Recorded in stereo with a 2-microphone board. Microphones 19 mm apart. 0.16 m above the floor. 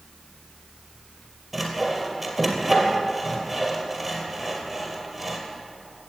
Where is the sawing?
5° left (ahead or behind), 2.5 m.